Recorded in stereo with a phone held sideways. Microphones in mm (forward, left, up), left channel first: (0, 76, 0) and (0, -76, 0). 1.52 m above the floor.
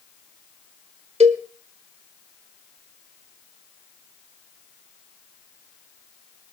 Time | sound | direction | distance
1.2 | a cowbell | 45° right (ahead or behind) | 1.6 m